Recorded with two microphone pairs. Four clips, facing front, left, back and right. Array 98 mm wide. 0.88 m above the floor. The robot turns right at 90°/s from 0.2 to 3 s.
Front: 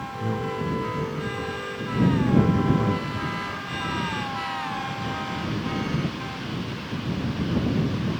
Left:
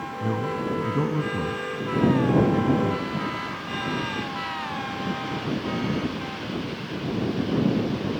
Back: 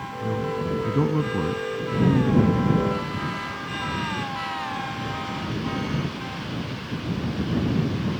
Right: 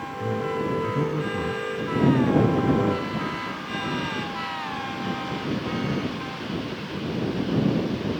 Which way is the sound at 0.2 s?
80° left.